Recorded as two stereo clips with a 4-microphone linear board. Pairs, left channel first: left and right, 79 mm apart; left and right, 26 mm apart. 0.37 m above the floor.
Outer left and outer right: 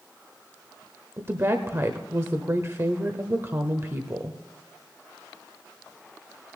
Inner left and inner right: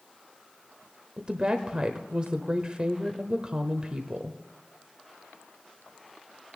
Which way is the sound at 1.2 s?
35° right (ahead or behind).